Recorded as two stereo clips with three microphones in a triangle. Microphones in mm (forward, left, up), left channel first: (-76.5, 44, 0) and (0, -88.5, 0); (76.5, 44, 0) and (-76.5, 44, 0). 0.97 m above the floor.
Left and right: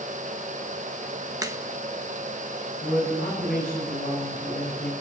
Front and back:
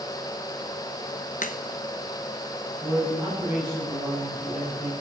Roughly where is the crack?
Ahead.